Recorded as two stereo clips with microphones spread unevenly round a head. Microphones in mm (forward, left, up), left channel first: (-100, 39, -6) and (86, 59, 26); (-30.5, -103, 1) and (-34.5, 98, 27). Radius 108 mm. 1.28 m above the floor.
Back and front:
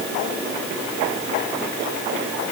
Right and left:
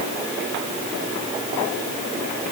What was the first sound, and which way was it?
Only background noise.